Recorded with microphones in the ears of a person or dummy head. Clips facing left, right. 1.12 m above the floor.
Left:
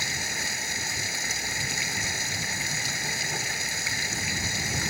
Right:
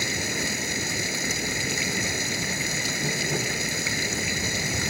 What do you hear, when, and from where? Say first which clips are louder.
0.0 s running water: right 7 dB; 70° right (ahead or behind)